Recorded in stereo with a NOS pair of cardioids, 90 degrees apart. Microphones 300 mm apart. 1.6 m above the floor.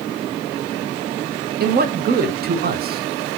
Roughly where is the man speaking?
Ahead right.